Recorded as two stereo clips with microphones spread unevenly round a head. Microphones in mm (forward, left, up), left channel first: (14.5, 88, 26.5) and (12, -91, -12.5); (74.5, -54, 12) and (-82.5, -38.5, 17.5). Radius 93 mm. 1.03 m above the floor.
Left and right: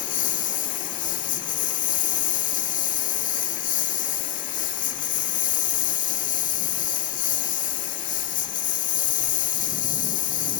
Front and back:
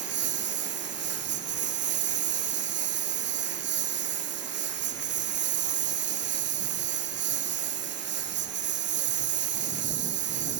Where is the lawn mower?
140° left.